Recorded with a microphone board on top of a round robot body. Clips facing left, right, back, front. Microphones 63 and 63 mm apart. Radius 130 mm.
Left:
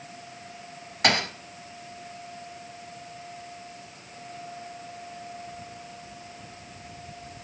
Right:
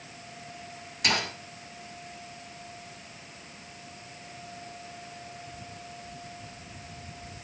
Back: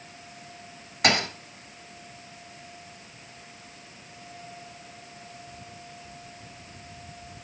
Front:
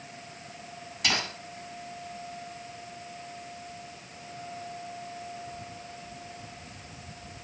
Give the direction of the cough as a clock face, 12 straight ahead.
I don't hear a cough.